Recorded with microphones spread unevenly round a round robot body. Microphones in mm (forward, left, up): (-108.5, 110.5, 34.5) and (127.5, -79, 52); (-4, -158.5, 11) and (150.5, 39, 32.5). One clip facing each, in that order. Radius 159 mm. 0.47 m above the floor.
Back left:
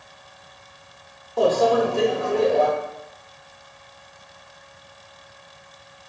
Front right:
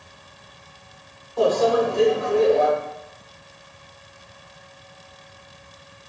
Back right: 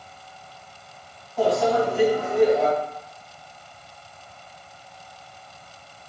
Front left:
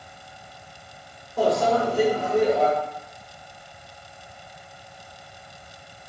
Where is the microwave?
95° left, 0.8 m.